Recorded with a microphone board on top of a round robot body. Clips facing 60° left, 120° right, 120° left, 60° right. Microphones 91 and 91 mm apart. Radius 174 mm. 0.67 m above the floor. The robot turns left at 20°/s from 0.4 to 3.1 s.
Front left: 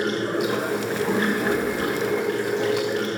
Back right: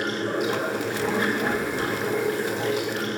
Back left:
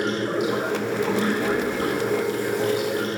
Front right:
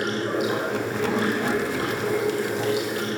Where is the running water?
20° right, 1.5 m; by 3.2 s 70° right, 1.5 m.